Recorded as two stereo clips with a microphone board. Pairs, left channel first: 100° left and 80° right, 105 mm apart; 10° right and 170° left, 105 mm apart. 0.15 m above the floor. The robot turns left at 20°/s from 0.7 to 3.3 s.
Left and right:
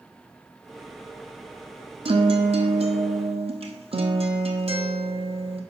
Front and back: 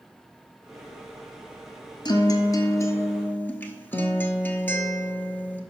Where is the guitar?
55° right, 1.0 m; by 5.6 s 80° right, 1.0 m.